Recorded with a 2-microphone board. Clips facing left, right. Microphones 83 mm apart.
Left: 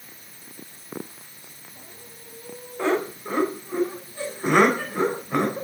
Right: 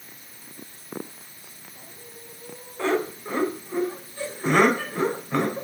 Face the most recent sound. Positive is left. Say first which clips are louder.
# left 1 dB
turn(degrees=15)  # may be behind; listen again after turning